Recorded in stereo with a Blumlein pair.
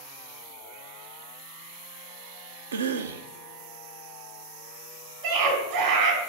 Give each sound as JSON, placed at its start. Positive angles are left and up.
{"t": 2.7, "sound": "a cough", "azimuth_deg": -65, "distance_m": 0.6}
{"t": 5.2, "sound": "a scream", "azimuth_deg": -50, "distance_m": 4.5}